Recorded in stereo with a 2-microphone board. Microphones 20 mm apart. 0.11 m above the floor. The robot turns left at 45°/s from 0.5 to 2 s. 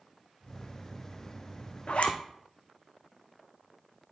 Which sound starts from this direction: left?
A zipper, at 1.9 s.